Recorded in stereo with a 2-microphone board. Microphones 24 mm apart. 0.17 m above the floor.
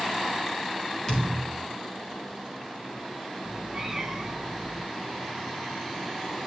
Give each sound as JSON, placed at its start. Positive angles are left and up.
{"t": 1.1, "sound": "a thud", "side_deg": 25, "distance_m": 4.0}
{"t": 3.4, "sound": "a cat meowing", "side_deg": -15, "distance_m": 1.9}